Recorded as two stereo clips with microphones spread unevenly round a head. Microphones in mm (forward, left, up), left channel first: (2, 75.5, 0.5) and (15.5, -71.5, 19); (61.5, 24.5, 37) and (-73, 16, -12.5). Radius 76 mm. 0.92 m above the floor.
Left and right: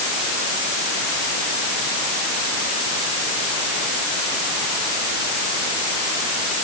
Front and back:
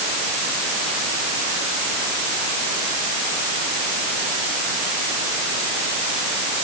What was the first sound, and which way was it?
Only background noise.